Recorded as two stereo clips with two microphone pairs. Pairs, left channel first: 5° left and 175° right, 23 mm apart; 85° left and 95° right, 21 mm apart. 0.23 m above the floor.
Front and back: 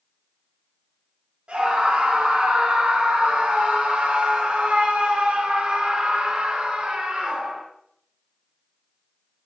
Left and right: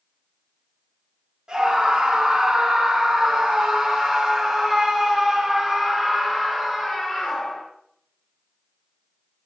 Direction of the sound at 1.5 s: 135° right.